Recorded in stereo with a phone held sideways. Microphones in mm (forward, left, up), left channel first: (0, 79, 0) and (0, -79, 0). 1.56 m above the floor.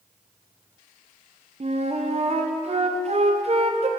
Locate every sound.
1.6 s a flute: 45° right (ahead or behind), 0.5 m